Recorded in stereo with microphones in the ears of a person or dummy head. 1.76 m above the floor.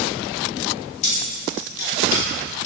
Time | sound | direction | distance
1.0 | keys jangling | 70° left (ahead or behind) | 3.5 m